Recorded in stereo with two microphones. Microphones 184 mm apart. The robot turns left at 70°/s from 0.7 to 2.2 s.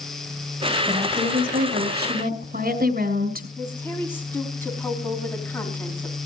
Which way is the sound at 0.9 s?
20° right.